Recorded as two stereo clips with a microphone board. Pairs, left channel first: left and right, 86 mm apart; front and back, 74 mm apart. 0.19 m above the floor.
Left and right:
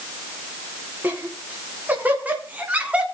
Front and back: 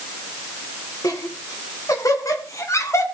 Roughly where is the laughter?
Ahead right.